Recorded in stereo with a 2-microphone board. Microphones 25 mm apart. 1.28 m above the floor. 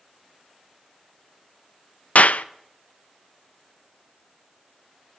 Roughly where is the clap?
Left.